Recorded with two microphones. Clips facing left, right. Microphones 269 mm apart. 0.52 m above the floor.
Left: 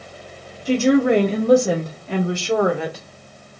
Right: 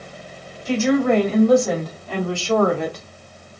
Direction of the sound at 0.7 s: 40° left (ahead or behind).